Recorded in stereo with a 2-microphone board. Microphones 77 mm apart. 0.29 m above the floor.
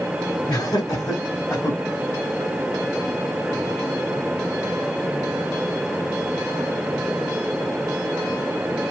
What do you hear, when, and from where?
0.5 s laughter: 50° left (ahead or behind), 2.5 m; by 1.8 s 30° left (ahead or behind), 1.8 m